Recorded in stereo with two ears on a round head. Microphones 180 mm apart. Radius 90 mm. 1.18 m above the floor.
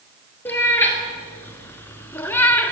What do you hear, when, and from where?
0.5 s a cat meowing: 10° left (ahead or behind), 2 m